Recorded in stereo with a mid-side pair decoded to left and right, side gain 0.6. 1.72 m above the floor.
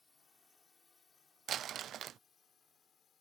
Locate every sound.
0.0 s a drone: 20° left; by 3.2 s 45° left
1.5 s crumpling: 50° right